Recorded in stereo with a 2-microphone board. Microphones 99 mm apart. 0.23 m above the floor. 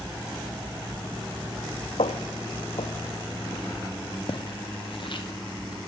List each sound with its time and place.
2.0 s footsteps: 80° left, 1.0 m; by 5.8 s 55° left (ahead or behind), 2.5 m